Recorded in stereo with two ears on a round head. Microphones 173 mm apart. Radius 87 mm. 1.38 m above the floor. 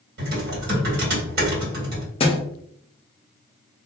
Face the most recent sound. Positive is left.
turn(degrees=30)  # may be behind; listen again after turning